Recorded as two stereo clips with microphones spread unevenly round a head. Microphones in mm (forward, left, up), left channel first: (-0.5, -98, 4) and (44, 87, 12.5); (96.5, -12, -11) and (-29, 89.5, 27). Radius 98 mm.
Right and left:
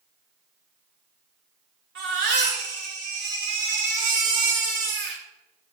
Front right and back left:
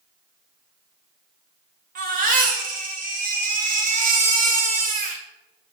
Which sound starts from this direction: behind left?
A baby crying, at 1.9 s.